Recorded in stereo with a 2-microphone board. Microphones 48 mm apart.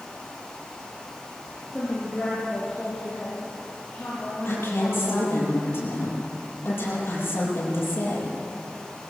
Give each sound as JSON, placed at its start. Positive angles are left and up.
{"t": 1.7, "sound": "a woman speaking", "side_deg": 10, "distance_m": 5.0}
{"t": 4.5, "sound": "a woman speaking", "side_deg": 55, "distance_m": 9.5}